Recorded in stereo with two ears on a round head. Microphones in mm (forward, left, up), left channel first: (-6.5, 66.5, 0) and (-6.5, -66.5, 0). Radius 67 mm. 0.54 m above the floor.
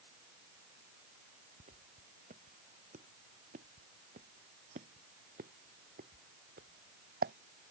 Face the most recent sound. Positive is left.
turn(degrees=-70)  # may be behind; listen again after turning